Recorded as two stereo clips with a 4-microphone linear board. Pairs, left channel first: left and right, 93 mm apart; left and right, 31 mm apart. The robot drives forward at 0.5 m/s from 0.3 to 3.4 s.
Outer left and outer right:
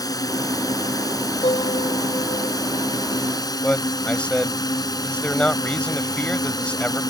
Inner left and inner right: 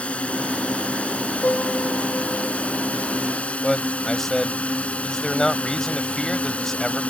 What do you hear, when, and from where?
0.0 s a drone: 40° left (ahead or behind); by 7.1 s 45° left (ahead or behind)
1.4 s a piano: 85° left; by 2.6 s 80° left
3.6 s a man speaking: 15° left (ahead or behind)